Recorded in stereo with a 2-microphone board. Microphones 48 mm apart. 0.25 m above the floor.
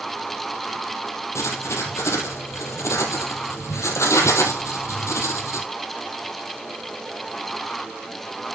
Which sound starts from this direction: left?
Writing, at 1.4 s.